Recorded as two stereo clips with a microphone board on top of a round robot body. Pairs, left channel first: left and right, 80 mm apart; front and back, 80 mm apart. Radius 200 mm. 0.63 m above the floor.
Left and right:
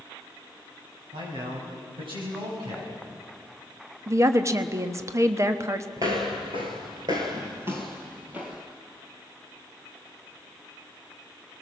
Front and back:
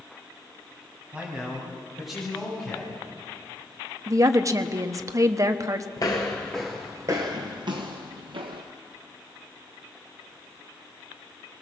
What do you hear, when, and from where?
1.1 s a man speaking: 105° right, 5.5 m; by 2.9 s 80° right, 6.5 m
4.1 s a woman speaking: 140° right, 1.3 m
6.0 s footsteps: 40° right, 0.7 m; by 8.6 s 165° right, 1.4 m